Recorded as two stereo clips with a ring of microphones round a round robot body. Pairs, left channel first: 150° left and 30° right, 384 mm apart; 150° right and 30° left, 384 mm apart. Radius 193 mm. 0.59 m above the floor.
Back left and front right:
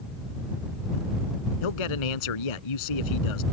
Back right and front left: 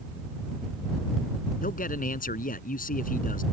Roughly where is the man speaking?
Behind left.